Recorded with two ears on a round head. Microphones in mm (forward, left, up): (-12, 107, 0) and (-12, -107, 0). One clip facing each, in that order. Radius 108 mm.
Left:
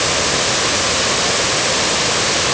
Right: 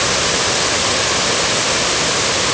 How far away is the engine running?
I don't hear an engine running.